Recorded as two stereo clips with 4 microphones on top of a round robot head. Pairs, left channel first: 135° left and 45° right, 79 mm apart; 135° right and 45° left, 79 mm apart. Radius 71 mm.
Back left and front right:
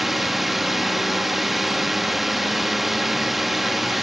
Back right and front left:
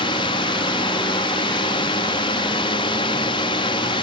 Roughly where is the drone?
Behind right.